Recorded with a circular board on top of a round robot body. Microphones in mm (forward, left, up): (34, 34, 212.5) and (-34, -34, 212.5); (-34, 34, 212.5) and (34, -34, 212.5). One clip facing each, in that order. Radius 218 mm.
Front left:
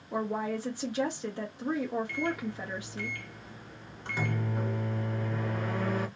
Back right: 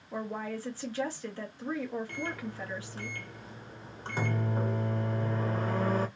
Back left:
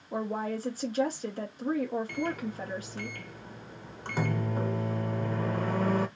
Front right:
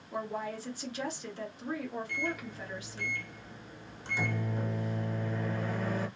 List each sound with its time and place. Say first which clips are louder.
0.1 s a woman speaking: front left 4 dB, back left 4 dB; 110° left, 1.1 m
2.1 s a microwave: front left 5 dB, back left 4 dB; 170° left, 0.8 m